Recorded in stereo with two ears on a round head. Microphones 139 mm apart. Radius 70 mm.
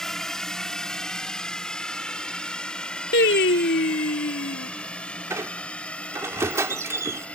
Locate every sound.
0.0 s a drone: 5° left (ahead or behind); by 7.4 s 10° left (ahead or behind)
3.1 s singing: 85° left
5.3 s a squeak: 20° right (ahead or behind)